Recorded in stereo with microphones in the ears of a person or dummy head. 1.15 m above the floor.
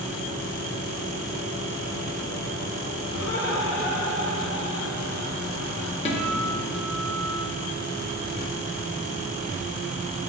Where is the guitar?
35° left (ahead or behind), 1.3 m.